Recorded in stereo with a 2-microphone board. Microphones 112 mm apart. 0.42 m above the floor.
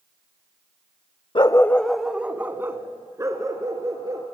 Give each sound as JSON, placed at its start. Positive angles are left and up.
{"t": 1.4, "sound": "a dog barking", "side_deg": 50, "distance_m": 0.6}